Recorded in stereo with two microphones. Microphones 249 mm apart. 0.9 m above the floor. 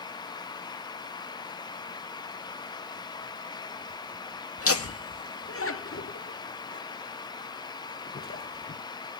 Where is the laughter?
65° left (ahead or behind), 1.9 m; by 8.8 s 35° left (ahead or behind), 4 m.